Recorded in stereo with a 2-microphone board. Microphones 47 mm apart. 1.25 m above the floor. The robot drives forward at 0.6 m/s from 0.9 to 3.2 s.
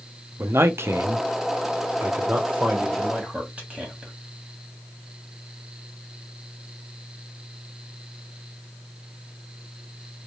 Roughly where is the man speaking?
Right.